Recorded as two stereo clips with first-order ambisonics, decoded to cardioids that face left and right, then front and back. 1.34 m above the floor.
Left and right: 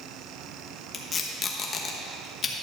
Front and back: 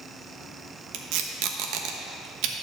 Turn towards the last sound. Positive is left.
turn(degrees=155)